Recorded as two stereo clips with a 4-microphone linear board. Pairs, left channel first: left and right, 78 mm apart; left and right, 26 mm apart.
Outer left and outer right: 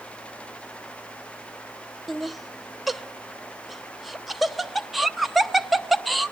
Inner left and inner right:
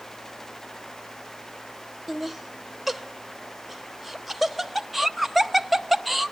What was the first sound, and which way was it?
Laughter, centre (ahead or behind).